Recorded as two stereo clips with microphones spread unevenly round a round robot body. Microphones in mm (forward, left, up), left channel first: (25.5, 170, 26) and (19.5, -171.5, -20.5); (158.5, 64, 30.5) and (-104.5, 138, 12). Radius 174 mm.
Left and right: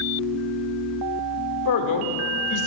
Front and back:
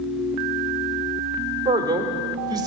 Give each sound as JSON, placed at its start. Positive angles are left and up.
{"t": 1.6, "sound": "a man speaking", "azimuth_deg": 100, "distance_m": 1.5}